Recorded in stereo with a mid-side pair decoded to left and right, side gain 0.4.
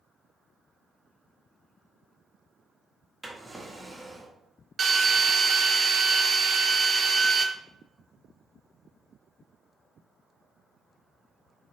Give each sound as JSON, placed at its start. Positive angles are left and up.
{"t": 3.2, "sound": "a drawer", "azimuth_deg": -10, "distance_m": 1.3}
{"t": 4.8, "sound": "a drill", "azimuth_deg": -45, "distance_m": 0.7}